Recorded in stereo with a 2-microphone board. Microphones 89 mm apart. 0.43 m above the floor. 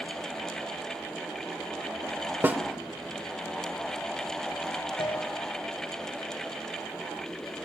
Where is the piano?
75° left (ahead or behind), 1.9 m.